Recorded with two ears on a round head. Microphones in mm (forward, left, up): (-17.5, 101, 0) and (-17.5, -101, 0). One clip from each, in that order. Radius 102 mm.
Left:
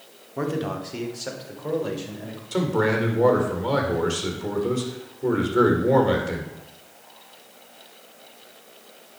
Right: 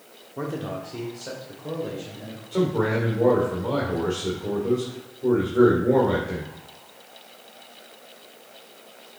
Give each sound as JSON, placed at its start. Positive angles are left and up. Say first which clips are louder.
{"t": 0.4, "sound": "a man speaking", "louder": "left 3 dB", "side_deg": 20, "distance_m": 1.1}
{"t": 2.5, "sound": "a man speaking", "louder": "left 1 dB", "side_deg": 50, "distance_m": 1.9}